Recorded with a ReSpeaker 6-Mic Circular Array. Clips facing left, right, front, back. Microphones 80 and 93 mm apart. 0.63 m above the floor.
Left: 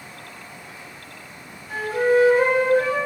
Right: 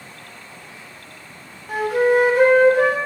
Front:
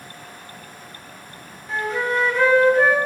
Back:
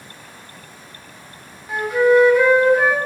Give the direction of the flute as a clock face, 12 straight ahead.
3 o'clock.